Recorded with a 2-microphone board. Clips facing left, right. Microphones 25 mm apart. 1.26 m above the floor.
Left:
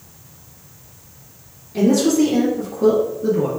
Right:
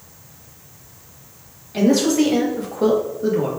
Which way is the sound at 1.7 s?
55° right (ahead or behind).